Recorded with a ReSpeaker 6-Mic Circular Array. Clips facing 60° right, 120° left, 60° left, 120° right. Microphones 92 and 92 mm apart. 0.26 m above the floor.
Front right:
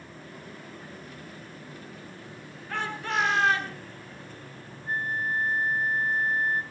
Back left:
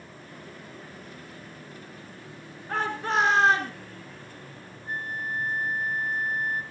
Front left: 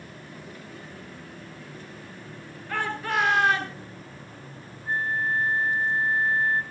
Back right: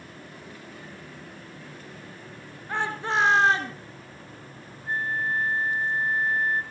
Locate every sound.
2.7 s a shout: 175° left, 4 m; by 3.8 s straight behind, 3.5 m
4.9 s a flute: 10° right, 1.1 m